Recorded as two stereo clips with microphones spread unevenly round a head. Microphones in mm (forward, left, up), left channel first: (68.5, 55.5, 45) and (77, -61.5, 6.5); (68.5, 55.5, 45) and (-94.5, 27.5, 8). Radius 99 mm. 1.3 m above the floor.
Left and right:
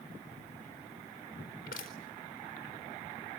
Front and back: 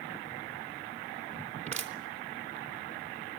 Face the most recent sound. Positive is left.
turn(degrees=140)